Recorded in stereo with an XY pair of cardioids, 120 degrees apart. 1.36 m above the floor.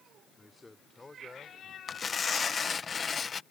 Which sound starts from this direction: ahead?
A man speaking, at 0.4 s.